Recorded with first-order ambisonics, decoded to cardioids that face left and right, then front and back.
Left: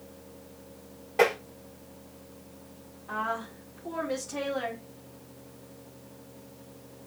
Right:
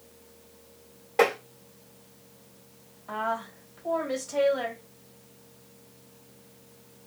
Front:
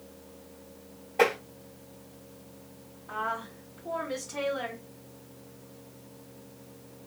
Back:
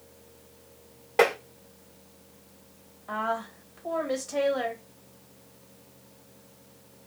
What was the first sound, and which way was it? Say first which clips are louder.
Tapping: right 1 dB, back 2 dB; 170° right.